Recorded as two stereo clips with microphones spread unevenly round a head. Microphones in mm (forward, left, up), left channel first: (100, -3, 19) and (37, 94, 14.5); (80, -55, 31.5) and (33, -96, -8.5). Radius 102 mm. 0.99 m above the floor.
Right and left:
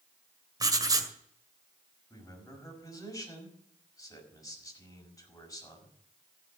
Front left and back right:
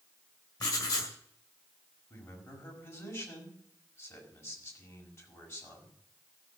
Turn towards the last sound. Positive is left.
turn(degrees=5)